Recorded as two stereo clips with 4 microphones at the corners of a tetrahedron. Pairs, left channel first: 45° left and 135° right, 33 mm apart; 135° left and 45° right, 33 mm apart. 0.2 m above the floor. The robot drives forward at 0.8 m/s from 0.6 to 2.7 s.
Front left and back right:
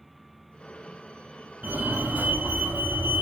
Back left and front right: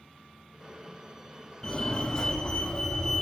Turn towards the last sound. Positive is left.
turn(degrees=-155)